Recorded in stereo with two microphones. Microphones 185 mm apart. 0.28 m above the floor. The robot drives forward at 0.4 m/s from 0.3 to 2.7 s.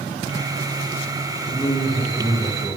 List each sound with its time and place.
1.5 s a man speaking: 10° right (ahead or behind), 3 m; by 2.8 s 5° right (ahead or behind), 3.5 m